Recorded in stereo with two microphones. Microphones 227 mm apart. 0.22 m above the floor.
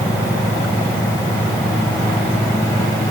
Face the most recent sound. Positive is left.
No sound to turn to.